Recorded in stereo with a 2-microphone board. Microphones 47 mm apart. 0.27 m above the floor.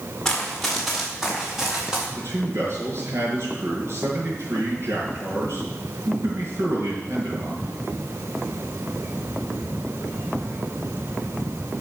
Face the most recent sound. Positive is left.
turn(degrees=-65)  # may be behind; listen again after turning